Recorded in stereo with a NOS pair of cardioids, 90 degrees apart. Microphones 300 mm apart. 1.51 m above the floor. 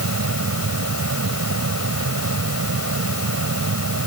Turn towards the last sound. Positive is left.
turn(degrees=-55)